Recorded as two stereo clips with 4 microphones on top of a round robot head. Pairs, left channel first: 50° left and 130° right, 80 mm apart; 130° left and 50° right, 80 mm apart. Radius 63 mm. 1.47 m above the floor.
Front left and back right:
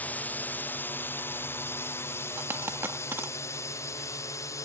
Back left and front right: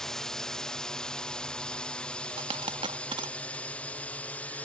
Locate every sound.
0.0 s a drone: 60° left; by 4.7 s 70° left
2.4 s a dropped coin: 70° right